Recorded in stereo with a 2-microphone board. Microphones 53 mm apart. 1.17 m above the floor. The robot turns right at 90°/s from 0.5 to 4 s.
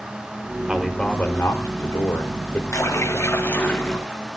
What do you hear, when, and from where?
0.7 s a man speaking: 15° right, 3.5 m; by 2.6 s 160° left, 3.5 m
2.7 s a splash: 75° left, 8 m; by 4.2 s 170° right, 8 m